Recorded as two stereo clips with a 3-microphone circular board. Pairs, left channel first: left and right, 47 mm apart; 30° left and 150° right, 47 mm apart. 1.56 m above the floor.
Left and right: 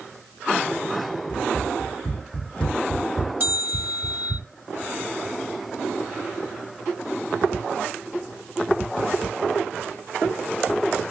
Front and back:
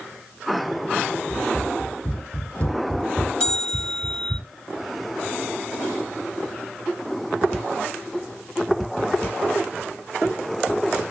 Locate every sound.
1.3 s running footsteps: 90° left, 2 m; by 4.4 s 25° right, 2 m
3.4 s a bell: 50° right, 3.5 m